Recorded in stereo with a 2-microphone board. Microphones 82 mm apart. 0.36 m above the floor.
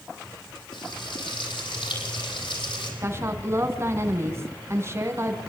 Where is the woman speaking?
35° right (ahead or behind), 3.5 m.